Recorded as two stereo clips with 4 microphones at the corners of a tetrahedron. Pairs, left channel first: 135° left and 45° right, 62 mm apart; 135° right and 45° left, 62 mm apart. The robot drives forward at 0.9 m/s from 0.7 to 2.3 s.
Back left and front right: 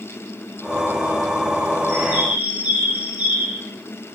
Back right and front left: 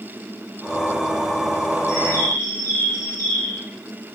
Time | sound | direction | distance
1.9 | a bird | 100° right | 3 m